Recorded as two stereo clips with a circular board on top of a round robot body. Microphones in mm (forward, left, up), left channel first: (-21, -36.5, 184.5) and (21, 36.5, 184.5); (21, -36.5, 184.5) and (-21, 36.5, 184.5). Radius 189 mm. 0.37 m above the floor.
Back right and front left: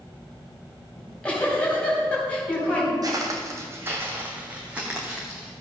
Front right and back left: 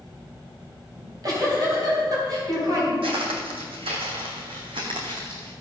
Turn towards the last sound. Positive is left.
turn(degrees=145)